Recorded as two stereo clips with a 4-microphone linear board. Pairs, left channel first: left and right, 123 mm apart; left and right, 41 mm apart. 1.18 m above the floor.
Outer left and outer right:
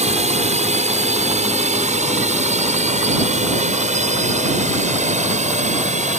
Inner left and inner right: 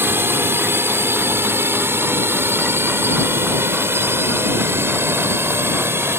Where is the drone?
70° right (ahead or behind); by 6.2 s 80° right.